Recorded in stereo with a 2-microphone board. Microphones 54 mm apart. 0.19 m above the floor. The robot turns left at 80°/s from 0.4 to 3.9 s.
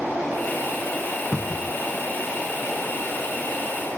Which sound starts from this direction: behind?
A cupboard door, at 1.3 s.